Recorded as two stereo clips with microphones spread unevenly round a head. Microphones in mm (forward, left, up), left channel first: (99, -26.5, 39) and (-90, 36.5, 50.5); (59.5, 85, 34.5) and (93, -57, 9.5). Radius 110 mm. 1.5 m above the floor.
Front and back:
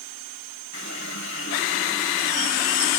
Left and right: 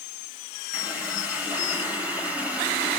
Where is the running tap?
5° left, 5 m.